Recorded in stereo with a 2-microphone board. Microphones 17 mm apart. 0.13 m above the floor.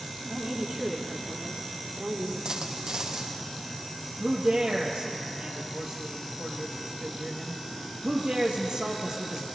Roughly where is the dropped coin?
Right.